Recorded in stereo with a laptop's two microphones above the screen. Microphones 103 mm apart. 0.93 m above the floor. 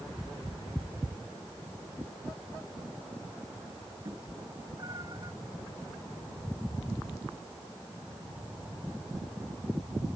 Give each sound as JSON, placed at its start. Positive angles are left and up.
{"t": 4.0, "sound": "a cat meowing", "side_deg": -40}